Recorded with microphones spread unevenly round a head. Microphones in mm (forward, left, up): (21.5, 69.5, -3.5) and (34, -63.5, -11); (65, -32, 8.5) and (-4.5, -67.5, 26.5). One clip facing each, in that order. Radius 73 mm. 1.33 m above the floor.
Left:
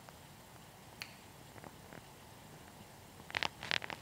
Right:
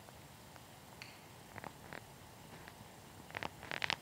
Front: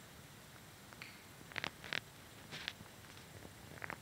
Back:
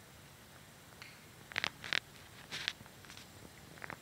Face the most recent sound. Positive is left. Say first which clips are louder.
# left 1 dB, even
turn(degrees=135)